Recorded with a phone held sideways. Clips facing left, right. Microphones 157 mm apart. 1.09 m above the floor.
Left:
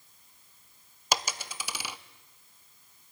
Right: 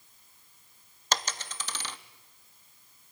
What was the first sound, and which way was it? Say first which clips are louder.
A dropped coin: left 1 dB; 10° left (ahead or behind).